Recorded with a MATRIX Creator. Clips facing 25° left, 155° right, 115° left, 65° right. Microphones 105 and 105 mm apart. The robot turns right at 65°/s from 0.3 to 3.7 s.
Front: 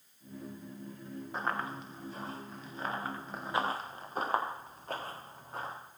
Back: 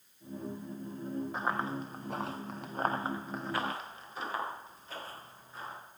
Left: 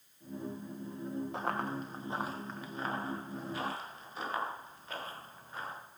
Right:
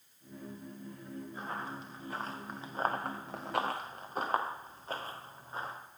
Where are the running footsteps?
110° left, 2.5 m; by 5.7 s 5° right, 4 m.